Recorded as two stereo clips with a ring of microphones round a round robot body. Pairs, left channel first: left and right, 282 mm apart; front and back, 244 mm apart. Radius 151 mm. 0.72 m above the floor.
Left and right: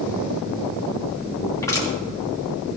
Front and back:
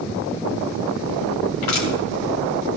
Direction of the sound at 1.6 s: 10° left.